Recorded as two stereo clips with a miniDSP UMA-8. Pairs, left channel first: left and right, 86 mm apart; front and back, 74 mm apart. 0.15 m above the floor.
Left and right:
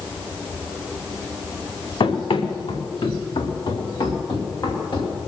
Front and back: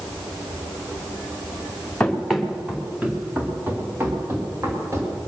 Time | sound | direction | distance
2.0 | running footsteps | 80° left | 2 m